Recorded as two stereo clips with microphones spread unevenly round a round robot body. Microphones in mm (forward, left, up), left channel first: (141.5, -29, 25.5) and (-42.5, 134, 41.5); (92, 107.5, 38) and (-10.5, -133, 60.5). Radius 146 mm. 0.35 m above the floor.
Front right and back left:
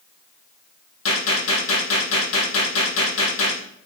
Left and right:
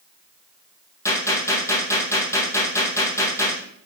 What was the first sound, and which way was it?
A gunshot, 15° right.